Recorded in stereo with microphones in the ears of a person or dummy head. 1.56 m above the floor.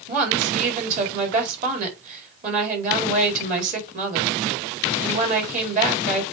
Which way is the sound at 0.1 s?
45° right (ahead or behind).